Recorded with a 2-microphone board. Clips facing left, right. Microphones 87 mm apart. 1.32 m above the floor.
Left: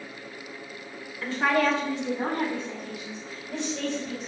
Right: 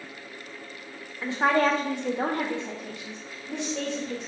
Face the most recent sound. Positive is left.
turn(degrees=-60)  # may be behind; listen again after turning